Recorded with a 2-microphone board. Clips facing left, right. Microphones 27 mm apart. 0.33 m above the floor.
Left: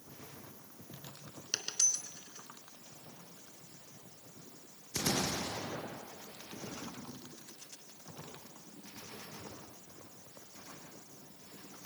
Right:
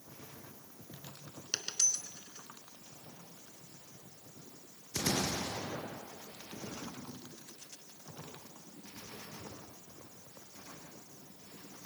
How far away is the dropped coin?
About 2 m.